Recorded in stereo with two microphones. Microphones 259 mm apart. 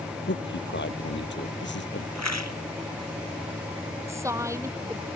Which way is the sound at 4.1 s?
10° right (ahead or behind).